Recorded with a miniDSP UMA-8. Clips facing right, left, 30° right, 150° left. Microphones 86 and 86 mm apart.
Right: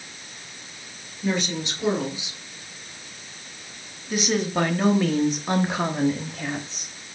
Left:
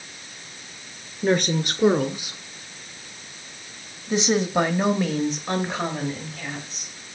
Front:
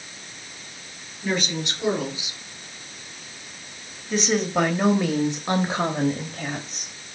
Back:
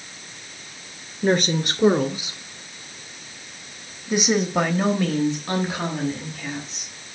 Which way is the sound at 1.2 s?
120° left.